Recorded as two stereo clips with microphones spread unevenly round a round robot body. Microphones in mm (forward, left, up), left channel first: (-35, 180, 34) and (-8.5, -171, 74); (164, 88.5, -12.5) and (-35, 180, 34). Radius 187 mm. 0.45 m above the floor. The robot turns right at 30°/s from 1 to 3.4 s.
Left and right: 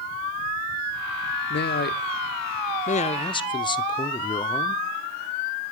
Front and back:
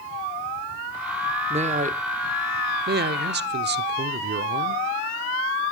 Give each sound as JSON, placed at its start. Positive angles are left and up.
{"t": 1.5, "sound": "a man speaking", "azimuth_deg": 95, "distance_m": 0.8}